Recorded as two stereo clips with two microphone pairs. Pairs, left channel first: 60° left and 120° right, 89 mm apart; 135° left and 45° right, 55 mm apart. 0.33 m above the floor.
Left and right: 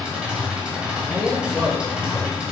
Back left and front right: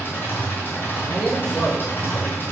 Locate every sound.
0.0 s an engine running: 165° left, 1.3 m
1.1 s a man speaking: 170° right, 0.8 m